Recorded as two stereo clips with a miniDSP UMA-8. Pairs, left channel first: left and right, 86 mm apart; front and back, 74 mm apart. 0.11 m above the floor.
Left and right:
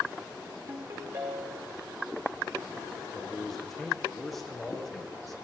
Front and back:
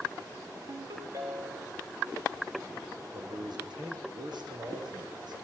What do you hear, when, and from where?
0.7 s a ringtone: 140° right, 5 m
3.1 s a man speaking: straight behind, 7.5 m